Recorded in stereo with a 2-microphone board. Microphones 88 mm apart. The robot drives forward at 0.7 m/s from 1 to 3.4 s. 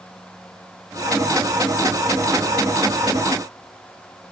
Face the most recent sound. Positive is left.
No sound to turn to.